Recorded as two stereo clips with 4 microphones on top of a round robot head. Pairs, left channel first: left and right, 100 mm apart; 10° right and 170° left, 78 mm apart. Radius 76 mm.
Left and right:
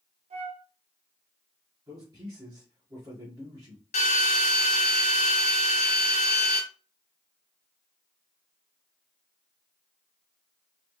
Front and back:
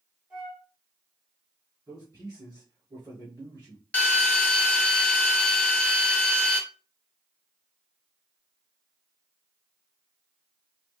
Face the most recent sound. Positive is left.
turn(degrees=65)